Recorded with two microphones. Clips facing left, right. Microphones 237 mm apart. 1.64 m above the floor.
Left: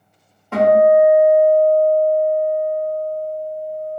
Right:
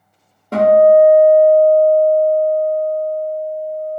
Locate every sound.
0.5 s a guitar: 40° right (ahead or behind), 0.7 m